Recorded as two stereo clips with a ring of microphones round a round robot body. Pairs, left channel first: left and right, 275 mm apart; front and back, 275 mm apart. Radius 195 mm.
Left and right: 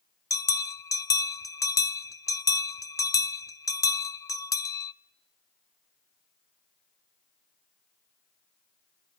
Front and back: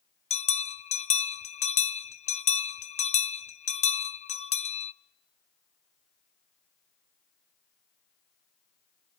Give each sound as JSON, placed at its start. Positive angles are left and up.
{"t": 0.3, "sound": "a bell", "azimuth_deg": 25, "distance_m": 0.5}